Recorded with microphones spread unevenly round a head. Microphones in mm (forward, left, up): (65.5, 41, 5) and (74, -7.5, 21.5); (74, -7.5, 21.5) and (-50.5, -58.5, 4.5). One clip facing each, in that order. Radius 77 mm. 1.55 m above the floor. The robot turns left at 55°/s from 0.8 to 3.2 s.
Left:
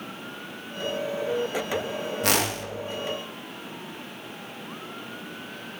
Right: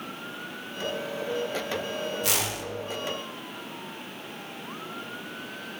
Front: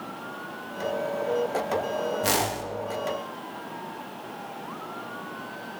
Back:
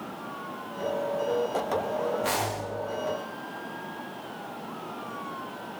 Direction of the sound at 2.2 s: 70° left.